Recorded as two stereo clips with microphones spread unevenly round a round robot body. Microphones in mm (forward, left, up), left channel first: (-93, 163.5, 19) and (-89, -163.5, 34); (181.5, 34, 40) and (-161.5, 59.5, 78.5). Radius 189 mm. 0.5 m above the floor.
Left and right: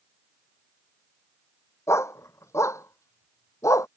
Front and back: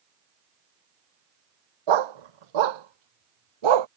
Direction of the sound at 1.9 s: 175° left.